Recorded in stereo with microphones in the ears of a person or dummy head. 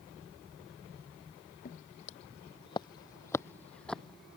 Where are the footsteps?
45° left (ahead or behind); by 4.4 s 5° right (ahead or behind).